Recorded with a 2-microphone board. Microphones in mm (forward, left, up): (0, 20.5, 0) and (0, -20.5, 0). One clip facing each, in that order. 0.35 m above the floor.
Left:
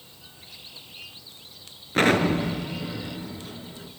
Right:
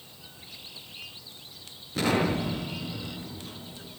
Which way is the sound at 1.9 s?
45° left (ahead or behind).